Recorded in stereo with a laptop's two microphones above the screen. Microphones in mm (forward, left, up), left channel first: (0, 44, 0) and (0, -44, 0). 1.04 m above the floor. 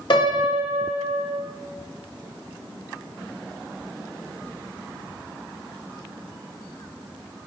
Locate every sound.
0.1 s a piano: 60° left (ahead or behind), 1.0 m